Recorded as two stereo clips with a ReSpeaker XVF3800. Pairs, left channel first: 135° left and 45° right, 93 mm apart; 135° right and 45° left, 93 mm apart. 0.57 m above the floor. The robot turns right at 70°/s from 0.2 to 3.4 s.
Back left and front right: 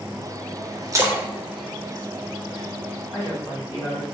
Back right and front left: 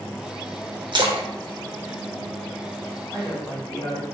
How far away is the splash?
About 0.5 m.